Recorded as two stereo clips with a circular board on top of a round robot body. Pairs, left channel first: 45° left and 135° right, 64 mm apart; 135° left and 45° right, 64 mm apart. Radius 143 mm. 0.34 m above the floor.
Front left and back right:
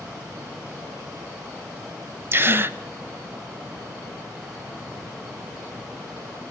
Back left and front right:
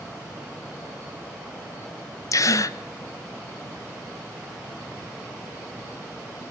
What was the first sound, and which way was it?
A gasp, 170° left.